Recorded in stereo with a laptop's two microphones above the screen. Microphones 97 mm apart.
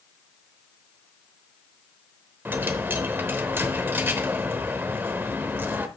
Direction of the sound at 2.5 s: 20° right (ahead or behind).